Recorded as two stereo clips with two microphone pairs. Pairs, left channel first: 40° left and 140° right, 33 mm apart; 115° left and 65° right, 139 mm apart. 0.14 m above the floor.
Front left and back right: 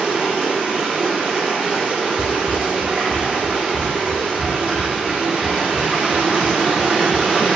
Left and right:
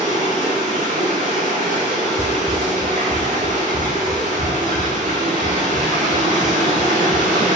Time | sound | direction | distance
0.0 | running water | 80° right | 1.1 m
2.2 | running footsteps | 40° left | 0.5 m